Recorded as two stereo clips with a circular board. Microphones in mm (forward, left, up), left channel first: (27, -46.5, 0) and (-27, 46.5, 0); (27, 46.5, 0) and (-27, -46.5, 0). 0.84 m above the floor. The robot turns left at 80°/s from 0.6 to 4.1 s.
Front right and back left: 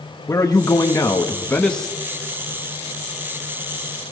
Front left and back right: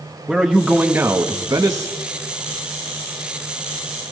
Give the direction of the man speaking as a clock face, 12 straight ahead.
1 o'clock.